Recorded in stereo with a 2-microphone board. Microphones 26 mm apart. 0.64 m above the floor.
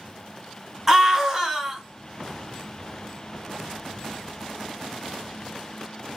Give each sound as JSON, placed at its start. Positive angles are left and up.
{"t": 0.9, "sound": "a scream", "side_deg": -15, "distance_m": 1.1}